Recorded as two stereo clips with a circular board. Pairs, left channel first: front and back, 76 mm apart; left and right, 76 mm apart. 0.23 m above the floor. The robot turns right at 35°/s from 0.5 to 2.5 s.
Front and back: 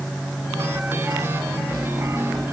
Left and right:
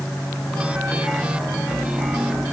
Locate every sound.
Only background noise.